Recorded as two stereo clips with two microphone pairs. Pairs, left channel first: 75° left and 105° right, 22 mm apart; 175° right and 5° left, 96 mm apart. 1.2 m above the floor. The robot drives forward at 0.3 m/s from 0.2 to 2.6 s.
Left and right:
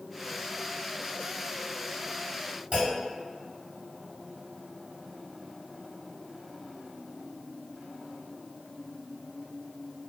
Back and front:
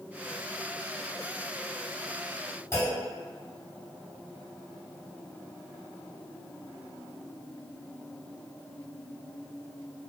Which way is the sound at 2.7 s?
130° right.